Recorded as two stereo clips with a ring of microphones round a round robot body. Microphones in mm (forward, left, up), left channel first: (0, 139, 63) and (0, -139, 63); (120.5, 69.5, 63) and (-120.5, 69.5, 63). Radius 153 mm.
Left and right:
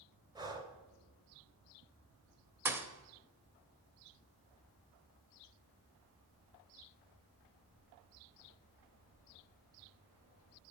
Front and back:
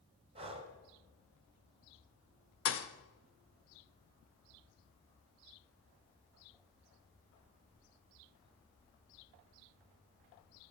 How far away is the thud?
About 0.7 m.